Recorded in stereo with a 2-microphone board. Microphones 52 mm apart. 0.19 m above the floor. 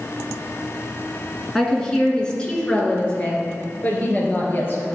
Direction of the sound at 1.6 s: 10° left (ahead or behind).